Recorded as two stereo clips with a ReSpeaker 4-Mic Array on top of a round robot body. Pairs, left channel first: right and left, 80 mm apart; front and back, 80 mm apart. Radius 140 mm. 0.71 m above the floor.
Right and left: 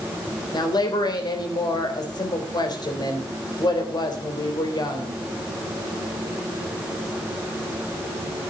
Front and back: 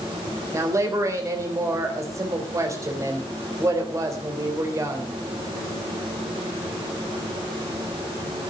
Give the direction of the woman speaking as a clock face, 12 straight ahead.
4 o'clock.